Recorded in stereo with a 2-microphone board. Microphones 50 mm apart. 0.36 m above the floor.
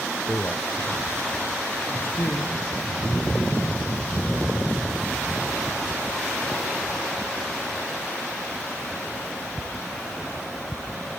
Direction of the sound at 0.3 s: 30° left (ahead or behind).